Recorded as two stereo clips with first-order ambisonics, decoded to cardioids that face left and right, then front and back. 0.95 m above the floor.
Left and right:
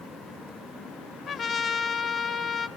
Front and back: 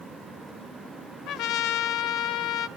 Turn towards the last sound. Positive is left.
turn(degrees=25)